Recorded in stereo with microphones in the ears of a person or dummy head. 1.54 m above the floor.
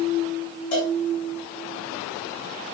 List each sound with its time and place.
0.7 s a cowbell: 40° left (ahead or behind), 7 m